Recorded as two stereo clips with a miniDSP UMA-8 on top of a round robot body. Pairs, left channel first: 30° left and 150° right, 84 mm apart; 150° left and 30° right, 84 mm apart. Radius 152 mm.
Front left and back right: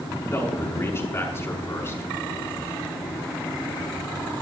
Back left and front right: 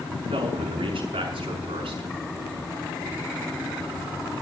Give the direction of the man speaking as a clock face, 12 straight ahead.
1 o'clock.